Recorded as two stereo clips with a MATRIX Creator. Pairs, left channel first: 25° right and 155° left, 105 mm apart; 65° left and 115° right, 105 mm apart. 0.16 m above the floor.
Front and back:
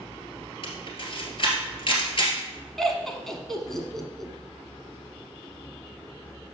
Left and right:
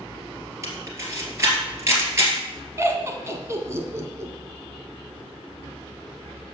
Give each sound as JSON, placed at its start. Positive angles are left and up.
{"t": 0.6, "sound": "a camera shutter", "azimuth_deg": -50, "distance_m": 2.0}
{"t": 2.8, "sound": "laughter", "azimuth_deg": -105, "distance_m": 1.4}